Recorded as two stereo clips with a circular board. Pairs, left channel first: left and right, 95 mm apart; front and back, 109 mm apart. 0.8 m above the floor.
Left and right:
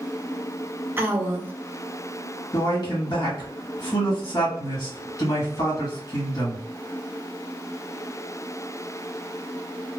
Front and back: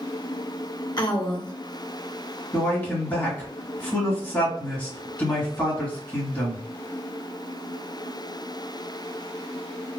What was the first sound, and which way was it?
A woman speaking, 30° right.